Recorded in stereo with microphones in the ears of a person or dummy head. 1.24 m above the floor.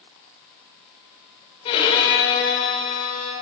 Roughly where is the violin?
Left.